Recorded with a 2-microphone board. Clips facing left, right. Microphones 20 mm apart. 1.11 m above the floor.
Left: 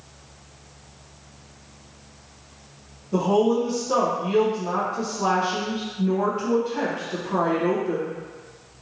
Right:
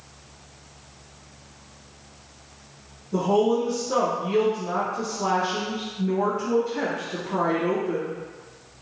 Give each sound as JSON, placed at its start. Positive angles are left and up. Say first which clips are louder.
{"t": 3.1, "sound": "a woman speaking", "louder": "left 1 dB", "side_deg": 45, "distance_m": 0.8}